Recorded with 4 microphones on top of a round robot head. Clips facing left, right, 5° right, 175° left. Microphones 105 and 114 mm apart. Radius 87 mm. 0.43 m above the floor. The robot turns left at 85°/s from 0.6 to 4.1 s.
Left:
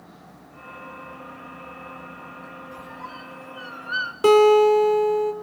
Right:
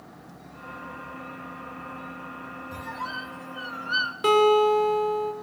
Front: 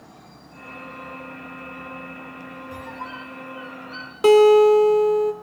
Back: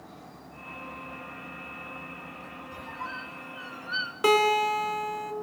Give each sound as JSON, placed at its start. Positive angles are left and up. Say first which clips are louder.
{"t": 2.7, "sound": "a squeak", "louder": "right 6 dB, front 3 dB", "azimuth_deg": -50, "distance_m": 1.3}
{"t": 4.2, "sound": "a guitar", "louder": "left 5 dB, front 11 dB", "azimuth_deg": 45, "distance_m": 2.0}